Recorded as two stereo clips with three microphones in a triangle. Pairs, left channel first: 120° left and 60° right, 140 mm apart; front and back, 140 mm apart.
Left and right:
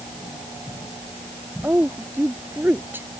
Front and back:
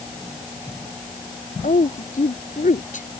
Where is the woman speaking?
15° left.